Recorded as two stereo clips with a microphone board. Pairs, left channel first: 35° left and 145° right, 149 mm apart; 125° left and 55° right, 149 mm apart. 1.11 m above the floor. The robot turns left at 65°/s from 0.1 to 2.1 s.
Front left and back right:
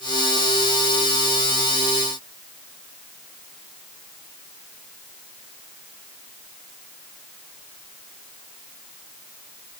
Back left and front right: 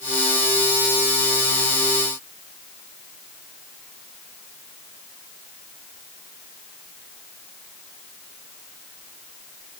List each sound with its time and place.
Only background noise.